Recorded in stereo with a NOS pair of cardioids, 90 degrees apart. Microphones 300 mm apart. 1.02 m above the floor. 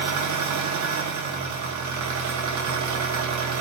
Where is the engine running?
70° right, 0.7 m.